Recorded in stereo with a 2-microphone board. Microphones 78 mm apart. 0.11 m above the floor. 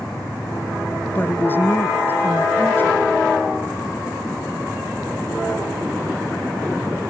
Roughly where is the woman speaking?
Left.